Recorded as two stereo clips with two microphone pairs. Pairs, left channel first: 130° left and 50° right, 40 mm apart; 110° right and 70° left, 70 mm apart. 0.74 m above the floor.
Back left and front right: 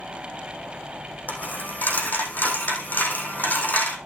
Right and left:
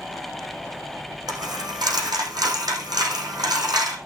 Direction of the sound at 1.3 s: 85° left.